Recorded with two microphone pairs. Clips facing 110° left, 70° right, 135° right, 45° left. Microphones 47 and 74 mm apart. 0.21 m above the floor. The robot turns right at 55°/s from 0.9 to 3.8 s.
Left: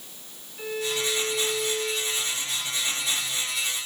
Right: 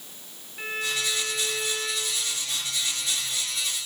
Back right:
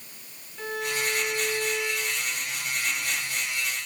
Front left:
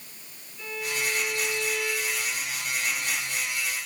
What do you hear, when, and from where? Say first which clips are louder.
0.6 s a violin: left 1 dB, back right 2 dB; 125° right, 3.5 m; by 2.3 s 45° right, 3.5 m